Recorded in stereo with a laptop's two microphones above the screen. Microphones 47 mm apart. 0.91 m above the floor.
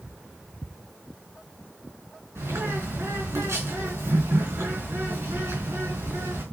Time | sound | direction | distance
2.4 | a bird | 85° right | 4.5 m